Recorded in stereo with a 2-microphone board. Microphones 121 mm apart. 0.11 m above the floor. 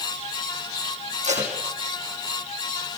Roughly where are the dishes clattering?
I don't hear dishes clattering.